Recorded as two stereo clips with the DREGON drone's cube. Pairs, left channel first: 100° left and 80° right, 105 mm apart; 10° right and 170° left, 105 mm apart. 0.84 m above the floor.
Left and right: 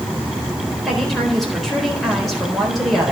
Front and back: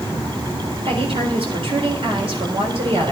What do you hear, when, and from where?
0.8 s a woman speaking: 170° right, 4 m